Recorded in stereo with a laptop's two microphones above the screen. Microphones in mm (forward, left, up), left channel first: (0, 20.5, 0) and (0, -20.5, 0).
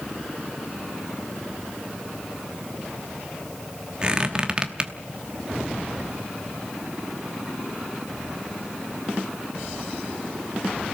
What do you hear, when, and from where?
4.0 s a squeak: 25° right (ahead or behind), 0.9 m